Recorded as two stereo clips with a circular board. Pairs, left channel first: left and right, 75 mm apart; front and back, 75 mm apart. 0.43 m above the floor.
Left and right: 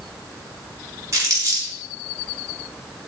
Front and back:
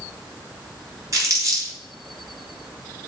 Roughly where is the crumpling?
Behind right.